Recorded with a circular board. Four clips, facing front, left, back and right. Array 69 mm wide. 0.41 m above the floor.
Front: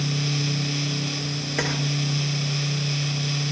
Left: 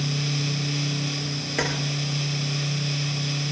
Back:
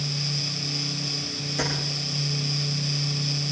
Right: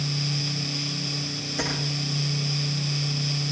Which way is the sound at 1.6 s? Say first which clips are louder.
Left 4 dB, front 2 dB; 45° left.